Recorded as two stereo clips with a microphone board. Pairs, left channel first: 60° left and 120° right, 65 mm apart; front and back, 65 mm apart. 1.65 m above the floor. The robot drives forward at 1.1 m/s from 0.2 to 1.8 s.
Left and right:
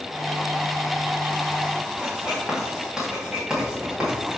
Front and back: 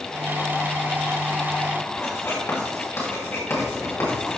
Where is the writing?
40° right, 3.5 m.